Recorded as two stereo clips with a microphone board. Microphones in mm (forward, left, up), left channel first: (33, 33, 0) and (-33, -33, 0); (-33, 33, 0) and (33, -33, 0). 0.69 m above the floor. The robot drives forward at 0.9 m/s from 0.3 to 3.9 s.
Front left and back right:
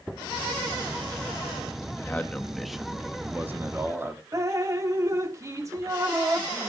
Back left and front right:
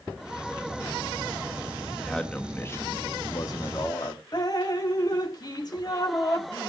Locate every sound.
2.0 s a man speaking: 45° left, 1.1 m; by 4.2 s 170° left, 1.8 m
4.3 s dripping: 175° left, 1.2 m